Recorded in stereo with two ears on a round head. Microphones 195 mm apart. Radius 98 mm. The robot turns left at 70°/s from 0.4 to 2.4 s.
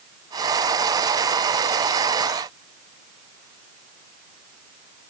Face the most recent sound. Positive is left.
No sound to turn to.